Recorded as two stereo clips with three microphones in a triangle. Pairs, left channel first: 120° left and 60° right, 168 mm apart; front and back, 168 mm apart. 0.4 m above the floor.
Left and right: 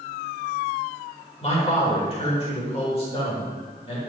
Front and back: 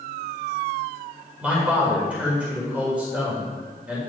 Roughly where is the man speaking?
Left.